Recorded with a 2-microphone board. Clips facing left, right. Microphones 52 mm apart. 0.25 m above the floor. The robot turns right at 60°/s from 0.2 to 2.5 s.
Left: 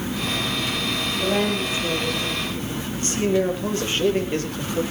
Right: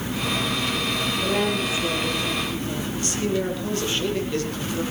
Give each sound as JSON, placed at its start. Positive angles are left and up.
{"t": 1.2, "sound": "a woman speaking", "azimuth_deg": 145, "distance_m": 10.0}
{"t": 3.0, "sound": "a man speaking", "side_deg": 30, "distance_m": 5.0}